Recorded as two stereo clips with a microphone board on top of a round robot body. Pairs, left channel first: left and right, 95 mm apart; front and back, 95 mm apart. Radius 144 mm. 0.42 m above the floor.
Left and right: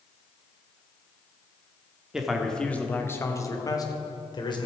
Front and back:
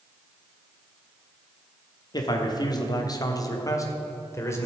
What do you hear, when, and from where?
2.1 s a man speaking: 10° right, 1.3 m; by 4.7 s 60° left, 2 m